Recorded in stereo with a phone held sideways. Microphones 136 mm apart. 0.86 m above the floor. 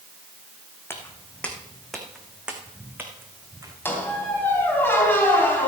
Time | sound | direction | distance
0.9 | footsteps | 15° left (ahead or behind) | 2 m
3.9 | a squeak | 15° left (ahead or behind) | 3.5 m